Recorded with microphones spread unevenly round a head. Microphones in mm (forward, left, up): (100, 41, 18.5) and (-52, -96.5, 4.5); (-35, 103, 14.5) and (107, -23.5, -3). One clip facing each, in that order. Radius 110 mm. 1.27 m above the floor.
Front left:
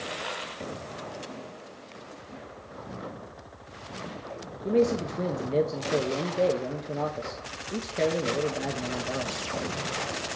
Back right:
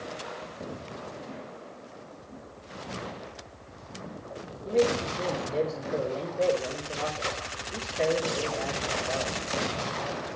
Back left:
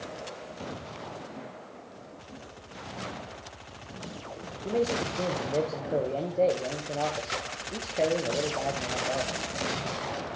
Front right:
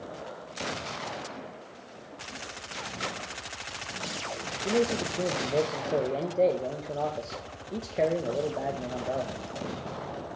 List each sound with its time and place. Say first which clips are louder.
4.7 s a man speaking: front left 1 dB, front right 1 dB; 35° left, 0.9 m